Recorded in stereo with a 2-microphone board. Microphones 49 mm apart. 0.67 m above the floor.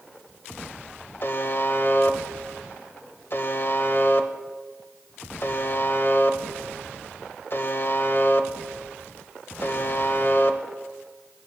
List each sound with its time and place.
1.2 s a buzzer: 50° left (ahead or behind), 0.5 m